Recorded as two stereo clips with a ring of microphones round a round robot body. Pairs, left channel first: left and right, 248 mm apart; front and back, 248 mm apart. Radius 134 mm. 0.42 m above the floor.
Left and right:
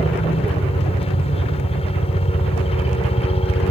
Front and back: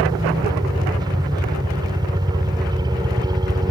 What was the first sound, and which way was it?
A helicopter, 125° left.